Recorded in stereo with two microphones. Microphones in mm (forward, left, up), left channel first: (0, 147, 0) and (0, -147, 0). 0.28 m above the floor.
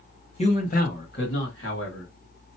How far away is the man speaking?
About 1.3 m.